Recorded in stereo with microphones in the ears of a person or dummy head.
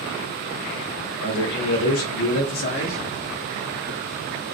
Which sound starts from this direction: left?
A man speaking, at 1.2 s.